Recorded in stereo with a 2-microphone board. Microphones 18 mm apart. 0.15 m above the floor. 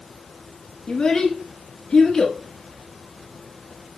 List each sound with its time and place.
0.9 s a child speaking: 40° left (ahead or behind), 1.2 m